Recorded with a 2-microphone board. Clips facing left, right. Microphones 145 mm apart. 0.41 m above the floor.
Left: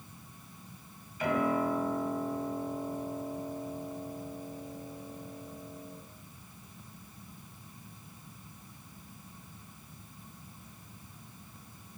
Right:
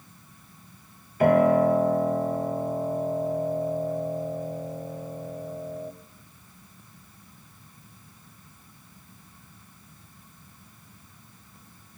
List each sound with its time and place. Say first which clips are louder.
1.2 s a piano: right 11 dB; 60° right (ahead or behind), 2.5 m